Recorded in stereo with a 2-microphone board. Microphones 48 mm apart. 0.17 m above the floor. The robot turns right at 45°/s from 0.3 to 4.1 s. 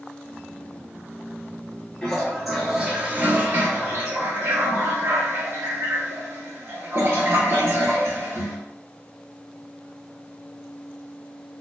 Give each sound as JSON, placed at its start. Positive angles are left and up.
{"t": 2.0, "sound": "a toilet flushing", "azimuth_deg": 160, "distance_m": 0.8}